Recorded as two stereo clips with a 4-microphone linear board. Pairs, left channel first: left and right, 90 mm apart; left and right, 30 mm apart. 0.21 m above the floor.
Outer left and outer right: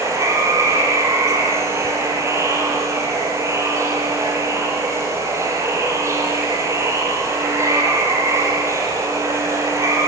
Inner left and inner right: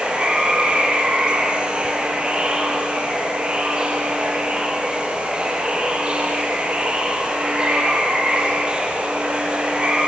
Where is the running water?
30° right (ahead or behind), 5.5 m.